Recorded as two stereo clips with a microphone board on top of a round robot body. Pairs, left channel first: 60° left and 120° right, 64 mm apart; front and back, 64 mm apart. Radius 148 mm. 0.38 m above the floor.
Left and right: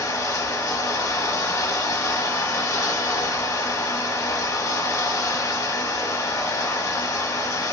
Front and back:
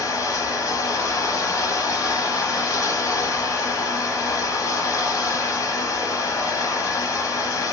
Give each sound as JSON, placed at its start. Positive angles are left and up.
{"t": 0.0, "sound": "running water", "azimuth_deg": 35, "distance_m": 0.9}